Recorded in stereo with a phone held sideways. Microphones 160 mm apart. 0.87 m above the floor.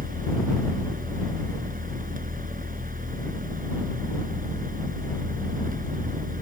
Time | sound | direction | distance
0.0 | a fan | 60° right (ahead or behind) | ?